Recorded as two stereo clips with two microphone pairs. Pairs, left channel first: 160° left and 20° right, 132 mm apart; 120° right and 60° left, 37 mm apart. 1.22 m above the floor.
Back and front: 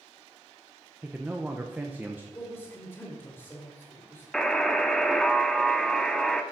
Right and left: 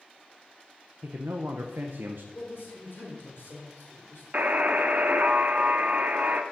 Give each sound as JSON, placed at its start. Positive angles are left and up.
{"t": 1.0, "sound": "a man speaking", "azimuth_deg": 55, "distance_m": 0.8}
{"t": 2.3, "sound": "a man speaking", "azimuth_deg": -135, "distance_m": 2.5}
{"t": 4.3, "sound": "a buzzer", "azimuth_deg": 75, "distance_m": 0.9}